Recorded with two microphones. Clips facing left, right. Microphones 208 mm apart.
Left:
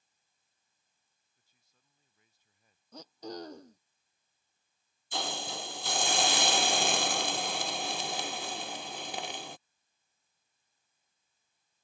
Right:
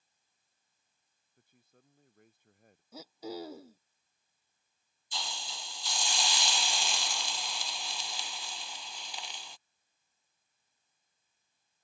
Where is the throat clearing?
5° right (ahead or behind).